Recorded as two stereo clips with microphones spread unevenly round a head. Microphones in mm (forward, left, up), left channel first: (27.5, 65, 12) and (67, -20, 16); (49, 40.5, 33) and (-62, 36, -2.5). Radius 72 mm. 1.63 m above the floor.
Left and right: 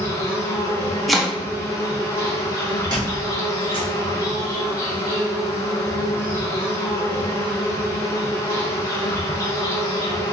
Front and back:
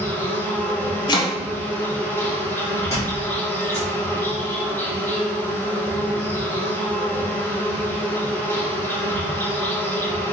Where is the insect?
95° left, 1.0 m.